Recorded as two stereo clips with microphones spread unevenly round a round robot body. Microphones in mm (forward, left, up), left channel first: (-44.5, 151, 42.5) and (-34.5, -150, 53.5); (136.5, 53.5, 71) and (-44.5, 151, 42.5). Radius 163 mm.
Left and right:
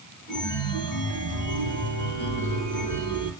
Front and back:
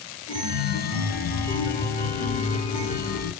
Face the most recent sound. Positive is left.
turn(degrees=15)